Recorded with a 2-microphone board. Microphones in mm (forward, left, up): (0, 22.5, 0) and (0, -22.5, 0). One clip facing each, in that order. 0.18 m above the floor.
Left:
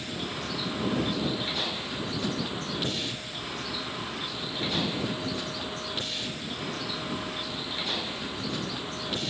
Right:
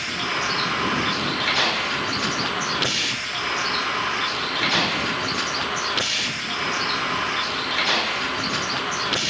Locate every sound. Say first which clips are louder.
0.0 s a vehicle: right 10 dB; 90° right